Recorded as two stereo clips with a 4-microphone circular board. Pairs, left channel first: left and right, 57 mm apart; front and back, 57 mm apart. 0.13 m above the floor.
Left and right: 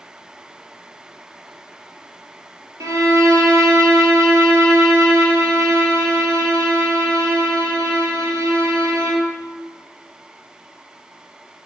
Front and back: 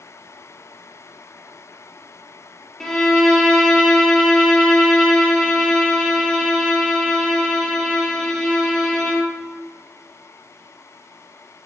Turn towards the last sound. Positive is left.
turn(degrees=-80)